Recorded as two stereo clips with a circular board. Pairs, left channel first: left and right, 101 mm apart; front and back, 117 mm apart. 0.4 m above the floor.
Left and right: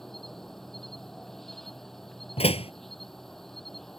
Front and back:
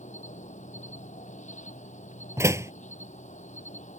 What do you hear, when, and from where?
0.0 s an insect: 5° left
2.4 s a door slam: 115° left